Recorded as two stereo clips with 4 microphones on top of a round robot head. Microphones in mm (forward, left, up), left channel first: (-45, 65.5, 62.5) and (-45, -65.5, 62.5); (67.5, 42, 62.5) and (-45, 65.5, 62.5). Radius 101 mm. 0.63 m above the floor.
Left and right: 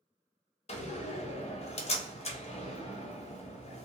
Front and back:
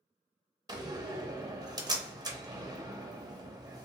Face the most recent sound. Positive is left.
turn(degrees=115)